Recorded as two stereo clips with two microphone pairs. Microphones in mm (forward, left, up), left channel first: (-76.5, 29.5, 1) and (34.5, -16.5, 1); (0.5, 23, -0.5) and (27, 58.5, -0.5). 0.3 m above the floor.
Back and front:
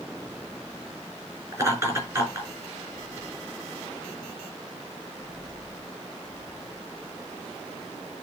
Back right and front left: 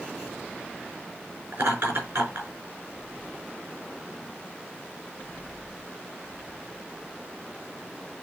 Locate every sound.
1.5 s laughter: 45° left, 4 m